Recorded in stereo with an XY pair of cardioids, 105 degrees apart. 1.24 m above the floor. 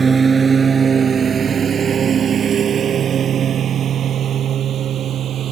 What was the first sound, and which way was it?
A lawn mower, 30° right.